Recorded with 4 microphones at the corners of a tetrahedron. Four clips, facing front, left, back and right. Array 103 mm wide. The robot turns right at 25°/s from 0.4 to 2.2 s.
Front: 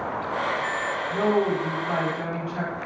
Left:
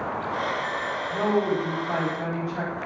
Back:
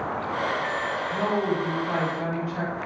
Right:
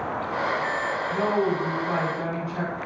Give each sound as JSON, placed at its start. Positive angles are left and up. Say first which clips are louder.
{"t": 1.1, "sound": "a woman speaking", "louder": "left 1 dB, front 4 dB", "azimuth_deg": 50, "distance_m": 1.9}